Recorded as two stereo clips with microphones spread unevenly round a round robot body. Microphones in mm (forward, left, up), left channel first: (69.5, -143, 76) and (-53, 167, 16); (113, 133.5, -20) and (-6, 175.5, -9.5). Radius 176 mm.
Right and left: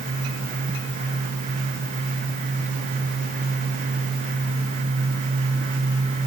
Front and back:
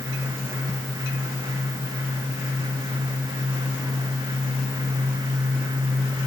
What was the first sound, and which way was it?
Only background noise.